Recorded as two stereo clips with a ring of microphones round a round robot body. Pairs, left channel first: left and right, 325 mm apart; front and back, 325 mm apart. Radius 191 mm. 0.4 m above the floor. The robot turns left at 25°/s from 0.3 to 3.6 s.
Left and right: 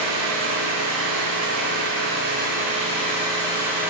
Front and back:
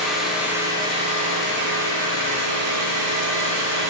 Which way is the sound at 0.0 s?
90° right.